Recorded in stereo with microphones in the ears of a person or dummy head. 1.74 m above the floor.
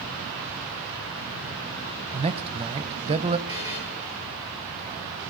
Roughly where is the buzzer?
Left.